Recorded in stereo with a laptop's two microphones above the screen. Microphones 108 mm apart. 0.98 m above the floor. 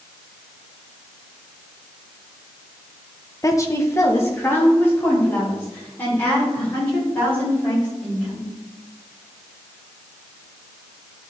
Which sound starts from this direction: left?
A woman speaking, at 3.4 s.